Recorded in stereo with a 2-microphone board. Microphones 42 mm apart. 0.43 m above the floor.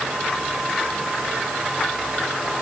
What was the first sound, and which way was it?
Only background noise.